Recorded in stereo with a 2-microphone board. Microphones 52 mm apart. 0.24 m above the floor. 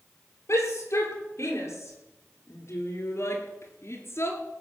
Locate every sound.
0.5 s a shout: 60° left (ahead or behind), 6 m; by 4.4 s 55° left (ahead or behind), 4 m